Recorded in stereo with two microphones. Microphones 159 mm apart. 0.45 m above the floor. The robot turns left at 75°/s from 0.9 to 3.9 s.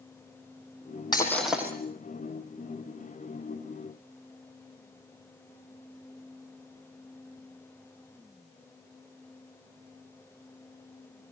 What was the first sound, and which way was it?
Breaking glass, 25° left.